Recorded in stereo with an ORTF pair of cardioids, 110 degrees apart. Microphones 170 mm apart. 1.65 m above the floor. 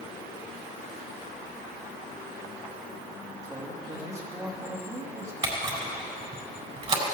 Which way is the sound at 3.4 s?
20° right.